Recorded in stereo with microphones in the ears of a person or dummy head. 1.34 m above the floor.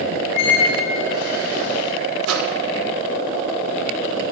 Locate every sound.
0.3 s a squeak: 50° left (ahead or behind), 1.8 m
2.2 s a microwave: 80° right, 1.2 m